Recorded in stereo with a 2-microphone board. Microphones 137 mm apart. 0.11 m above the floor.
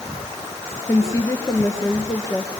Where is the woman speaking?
25° left (ahead or behind), 1.8 m.